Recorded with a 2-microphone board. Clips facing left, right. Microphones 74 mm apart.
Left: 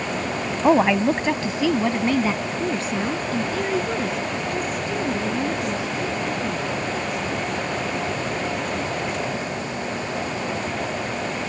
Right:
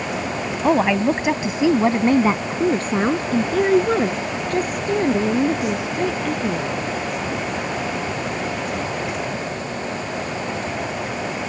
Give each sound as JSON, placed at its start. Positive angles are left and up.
{"t": 0.6, "sound": "a woman speaking", "side_deg": 10}